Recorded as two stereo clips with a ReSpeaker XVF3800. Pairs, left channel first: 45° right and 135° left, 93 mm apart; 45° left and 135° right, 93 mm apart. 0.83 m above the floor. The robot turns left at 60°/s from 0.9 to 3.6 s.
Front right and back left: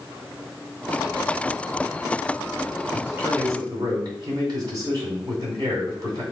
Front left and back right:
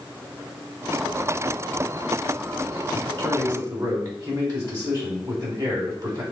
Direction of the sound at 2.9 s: 140° right.